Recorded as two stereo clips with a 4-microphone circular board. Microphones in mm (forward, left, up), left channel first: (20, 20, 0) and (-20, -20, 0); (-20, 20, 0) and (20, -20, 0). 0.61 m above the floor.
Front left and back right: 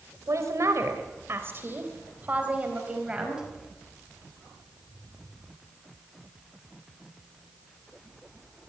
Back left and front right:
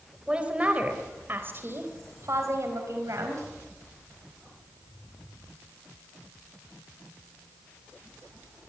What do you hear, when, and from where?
0.3 s a woman speaking: 115° right, 3.5 m; by 3.5 s 60° right, 4.5 m